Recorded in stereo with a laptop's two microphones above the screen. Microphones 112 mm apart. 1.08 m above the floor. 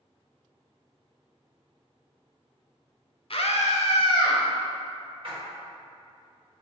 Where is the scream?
55° left (ahead or behind), 0.7 m; by 4.4 s 40° left (ahead or behind), 1.0 m.